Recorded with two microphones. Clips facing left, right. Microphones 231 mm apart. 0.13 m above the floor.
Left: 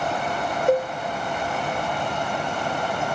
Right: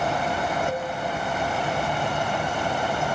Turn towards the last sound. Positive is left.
turn(degrees=65)  # may be behind; listen again after turning